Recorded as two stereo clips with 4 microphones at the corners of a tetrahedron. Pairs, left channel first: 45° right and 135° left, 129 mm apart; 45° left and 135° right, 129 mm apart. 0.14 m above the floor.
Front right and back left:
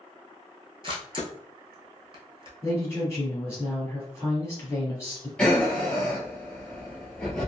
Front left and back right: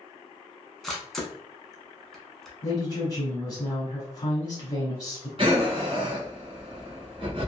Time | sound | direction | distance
0.8 | a camera shutter | 135° left | 0.9 m
2.6 | a woman speaking | 10° left | 1.5 m
5.4 | breathing | 125° right | 1.1 m